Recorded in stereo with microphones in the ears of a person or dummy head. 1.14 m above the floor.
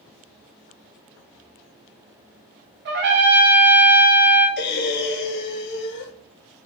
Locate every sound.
2.9 s a trumpet: 55° right (ahead or behind), 0.7 m
4.6 s breathing: 55° left (ahead or behind), 0.5 m